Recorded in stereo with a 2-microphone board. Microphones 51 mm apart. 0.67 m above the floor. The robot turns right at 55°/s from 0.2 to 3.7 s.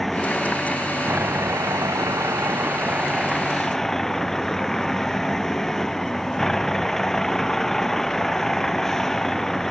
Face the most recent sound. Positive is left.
turn(degrees=5)